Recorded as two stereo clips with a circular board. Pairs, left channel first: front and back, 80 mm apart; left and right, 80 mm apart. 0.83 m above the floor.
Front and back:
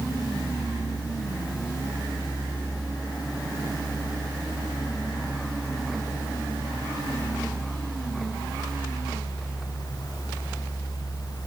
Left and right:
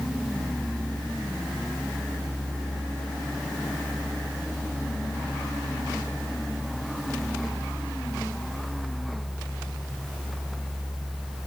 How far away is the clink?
I don't hear a clink.